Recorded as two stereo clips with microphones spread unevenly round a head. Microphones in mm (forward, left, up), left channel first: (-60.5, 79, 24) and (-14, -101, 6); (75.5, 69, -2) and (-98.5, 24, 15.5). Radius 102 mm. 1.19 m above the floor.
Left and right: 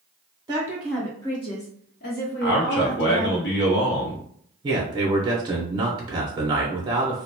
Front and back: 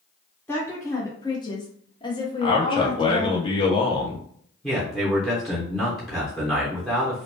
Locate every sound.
0.5 s a woman speaking: 50° right, 0.6 m; by 3.4 s 80° left, 1.4 m
2.4 s a man speaking: 70° left, 0.9 m
4.6 s a man speaking: 65° right, 0.6 m